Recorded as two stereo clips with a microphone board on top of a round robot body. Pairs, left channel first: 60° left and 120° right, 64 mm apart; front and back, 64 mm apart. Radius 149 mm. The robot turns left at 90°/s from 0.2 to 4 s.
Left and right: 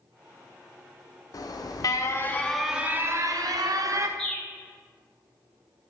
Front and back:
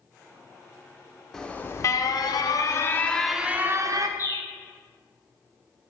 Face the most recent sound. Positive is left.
turn(degrees=-20)